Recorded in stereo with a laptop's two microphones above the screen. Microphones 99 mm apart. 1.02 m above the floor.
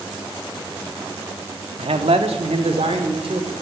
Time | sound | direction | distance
1.8 | a man speaking | 75° right (ahead or behind) | 1.6 m